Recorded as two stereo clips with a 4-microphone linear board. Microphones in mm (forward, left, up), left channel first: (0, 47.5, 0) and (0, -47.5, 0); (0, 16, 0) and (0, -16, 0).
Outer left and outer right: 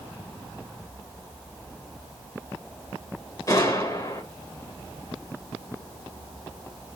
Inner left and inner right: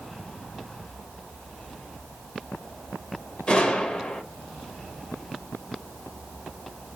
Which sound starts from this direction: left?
A gunshot, at 3.5 s.